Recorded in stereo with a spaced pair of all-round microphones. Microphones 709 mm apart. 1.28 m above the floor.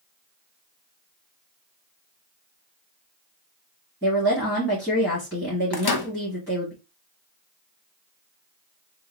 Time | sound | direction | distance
4.0 | a woman speaking | 15° left (ahead or behind) | 2.5 m
5.7 | a microwave | 35° left (ahead or behind) | 0.8 m